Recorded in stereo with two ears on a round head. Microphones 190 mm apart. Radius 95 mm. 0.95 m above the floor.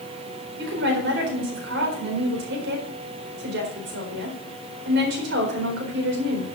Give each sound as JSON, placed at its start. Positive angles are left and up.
{"t": 0.6, "sound": "a woman speaking", "side_deg": -60, "distance_m": 4.0}